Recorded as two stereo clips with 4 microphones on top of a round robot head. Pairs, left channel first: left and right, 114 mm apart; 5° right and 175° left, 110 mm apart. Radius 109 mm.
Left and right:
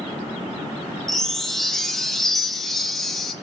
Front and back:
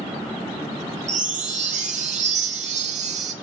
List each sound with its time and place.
1.1 s a chime: 175° left, 2.5 m